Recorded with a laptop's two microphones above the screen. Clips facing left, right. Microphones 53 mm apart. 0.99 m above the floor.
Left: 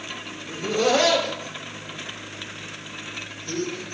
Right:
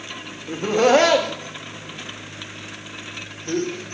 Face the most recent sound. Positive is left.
turn(degrees=-45)  # may be behind; listen again after turning